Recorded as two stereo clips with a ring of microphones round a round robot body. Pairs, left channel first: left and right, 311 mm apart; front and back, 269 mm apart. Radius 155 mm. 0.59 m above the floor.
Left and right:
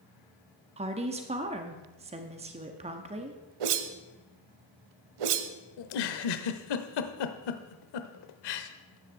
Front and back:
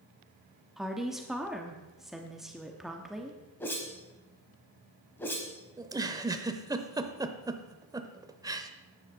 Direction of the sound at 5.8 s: 100° left.